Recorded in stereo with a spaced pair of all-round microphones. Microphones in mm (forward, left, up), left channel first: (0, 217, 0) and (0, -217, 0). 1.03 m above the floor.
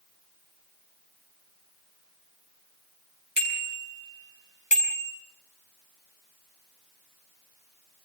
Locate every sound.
3.4 s a bicycle bell: 75° left (ahead or behind), 6.5 m